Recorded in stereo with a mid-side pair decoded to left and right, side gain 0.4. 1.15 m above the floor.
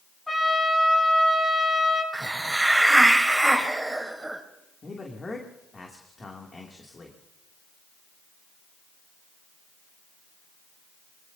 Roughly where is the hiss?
Ahead.